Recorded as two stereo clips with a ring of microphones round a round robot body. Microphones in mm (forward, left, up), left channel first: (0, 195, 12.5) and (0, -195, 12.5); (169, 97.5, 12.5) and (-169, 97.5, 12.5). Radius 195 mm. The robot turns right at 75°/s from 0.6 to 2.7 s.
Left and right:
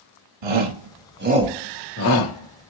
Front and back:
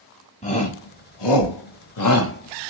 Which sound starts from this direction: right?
A shout, at 0.4 s.